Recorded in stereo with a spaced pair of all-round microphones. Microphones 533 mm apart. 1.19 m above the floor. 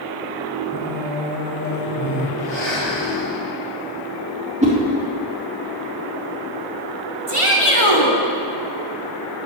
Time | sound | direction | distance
0.7 | singing | 5° left (ahead or behind) | 4 m
2.4 | breathing | 25° left (ahead or behind) | 4.5 m
4.6 | a whoosh | 15° right (ahead or behind) | 2.5 m
7.3 | a shout | 70° right (ahead or behind) | 2.5 m